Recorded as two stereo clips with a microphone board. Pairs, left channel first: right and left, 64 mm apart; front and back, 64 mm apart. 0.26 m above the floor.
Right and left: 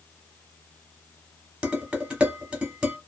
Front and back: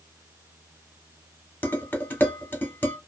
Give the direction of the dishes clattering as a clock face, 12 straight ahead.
11 o'clock.